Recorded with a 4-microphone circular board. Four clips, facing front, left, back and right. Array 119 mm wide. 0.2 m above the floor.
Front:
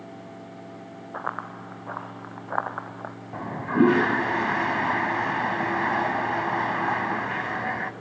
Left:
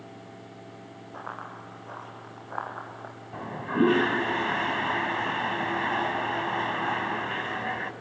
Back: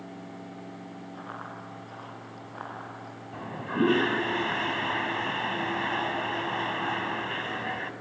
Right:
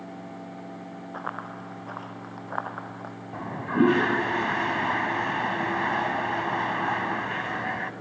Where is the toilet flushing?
15° right, 1.2 m.